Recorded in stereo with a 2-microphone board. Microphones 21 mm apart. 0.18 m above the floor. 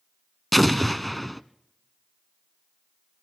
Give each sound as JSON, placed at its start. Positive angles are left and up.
{"t": 0.5, "sound": "an explosion", "side_deg": 5, "distance_m": 0.7}